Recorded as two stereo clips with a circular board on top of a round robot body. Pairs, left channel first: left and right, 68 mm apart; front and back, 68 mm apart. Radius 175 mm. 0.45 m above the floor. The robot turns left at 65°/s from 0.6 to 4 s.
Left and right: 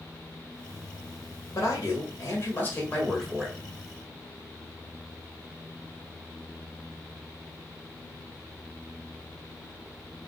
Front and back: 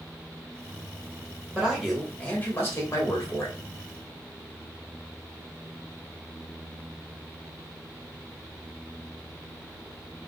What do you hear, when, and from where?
1.6 s a man speaking: 115° left, 1.6 m; by 3.6 s 20° right, 1.6 m